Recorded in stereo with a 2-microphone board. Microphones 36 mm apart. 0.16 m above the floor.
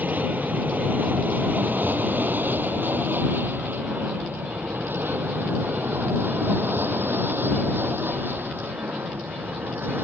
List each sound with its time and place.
0.0 s an aircraft: 45° right (ahead or behind); by 10.1 s 75° right (ahead or behind)